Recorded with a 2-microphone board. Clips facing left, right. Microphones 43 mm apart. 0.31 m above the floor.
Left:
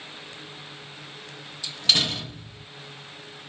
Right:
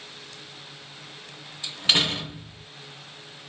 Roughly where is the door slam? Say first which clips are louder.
Right 1 dB; right.